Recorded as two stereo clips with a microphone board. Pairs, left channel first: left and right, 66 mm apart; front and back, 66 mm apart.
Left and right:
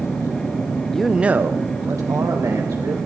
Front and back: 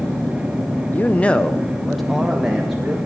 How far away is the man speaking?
About 0.6 m.